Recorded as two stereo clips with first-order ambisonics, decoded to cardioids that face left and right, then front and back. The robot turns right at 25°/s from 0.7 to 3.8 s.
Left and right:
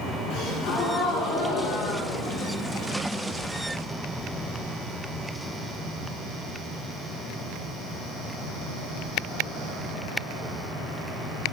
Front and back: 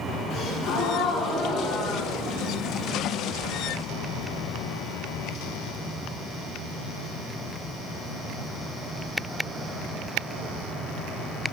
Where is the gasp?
60° left, 3 m; by 2.9 s 115° left, 3 m.